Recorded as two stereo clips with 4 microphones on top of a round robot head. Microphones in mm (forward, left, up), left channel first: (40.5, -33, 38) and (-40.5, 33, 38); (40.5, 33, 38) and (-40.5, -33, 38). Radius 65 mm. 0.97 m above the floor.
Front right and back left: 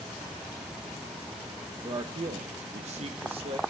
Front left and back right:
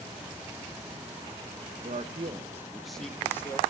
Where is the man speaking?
170° right, 0.9 m; by 3.6 s 100° left, 1.1 m.